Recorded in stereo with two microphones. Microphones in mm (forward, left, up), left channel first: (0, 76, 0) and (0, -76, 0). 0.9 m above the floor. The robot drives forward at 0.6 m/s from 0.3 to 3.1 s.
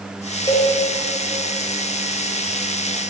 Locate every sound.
0.5 s a cowbell: 25° left (ahead or behind), 3.5 m